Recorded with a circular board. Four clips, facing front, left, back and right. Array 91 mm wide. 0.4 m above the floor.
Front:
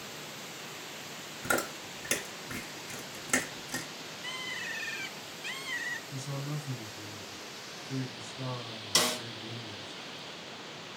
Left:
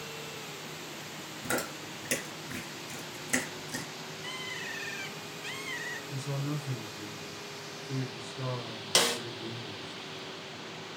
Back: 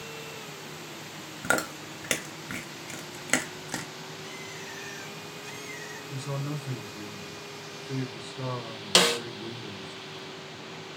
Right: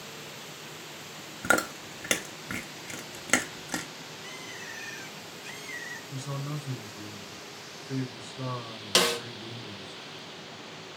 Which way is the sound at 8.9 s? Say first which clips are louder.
Right 3 dB, back 8 dB; 170° right.